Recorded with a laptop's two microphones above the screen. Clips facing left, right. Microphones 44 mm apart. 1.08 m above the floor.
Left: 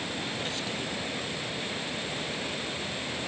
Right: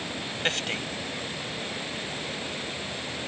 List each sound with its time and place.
0.4 s a man speaking: 65° right (ahead or behind)